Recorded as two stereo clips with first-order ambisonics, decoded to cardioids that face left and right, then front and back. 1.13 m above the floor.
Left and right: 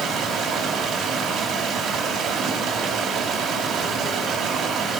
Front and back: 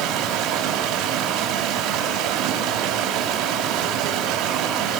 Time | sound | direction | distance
0.0 | running water | 145° right | 3 m